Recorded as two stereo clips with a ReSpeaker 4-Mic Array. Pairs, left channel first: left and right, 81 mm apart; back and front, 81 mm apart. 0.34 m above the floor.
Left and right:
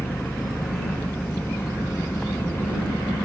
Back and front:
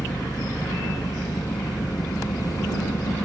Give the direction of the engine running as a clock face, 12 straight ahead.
7 o'clock.